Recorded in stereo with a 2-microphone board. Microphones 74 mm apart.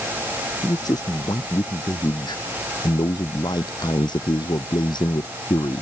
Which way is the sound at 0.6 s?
60° left (ahead or behind).